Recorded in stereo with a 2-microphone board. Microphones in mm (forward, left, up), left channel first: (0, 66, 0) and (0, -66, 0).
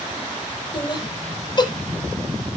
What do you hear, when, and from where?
0.7 s laughter: 35° left (ahead or behind), 4.5 m